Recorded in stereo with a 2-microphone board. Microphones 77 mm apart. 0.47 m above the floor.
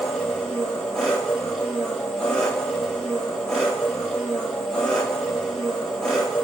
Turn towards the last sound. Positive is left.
turn(degrees=5)  # may be behind; listen again after turning